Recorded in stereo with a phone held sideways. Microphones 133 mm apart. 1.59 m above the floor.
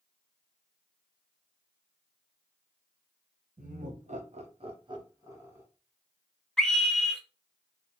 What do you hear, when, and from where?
3.6 s laughter: 75° right (ahead or behind), 1.1 m; by 5.7 s 15° right (ahead or behind), 1.1 m
6.6 s a scream: 5° left (ahead or behind), 1.0 m